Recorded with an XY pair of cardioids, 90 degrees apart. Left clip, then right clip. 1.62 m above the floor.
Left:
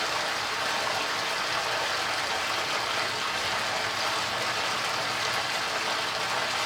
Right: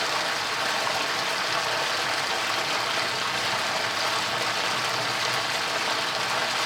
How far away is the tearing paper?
I don't hear tearing paper.